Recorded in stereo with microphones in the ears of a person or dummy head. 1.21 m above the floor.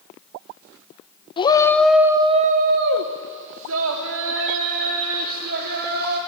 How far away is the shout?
About 1.0 m.